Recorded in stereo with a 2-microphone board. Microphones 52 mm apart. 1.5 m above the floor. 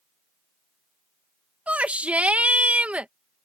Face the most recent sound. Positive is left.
turn(degrees=-25)  # may be behind; listen again after turning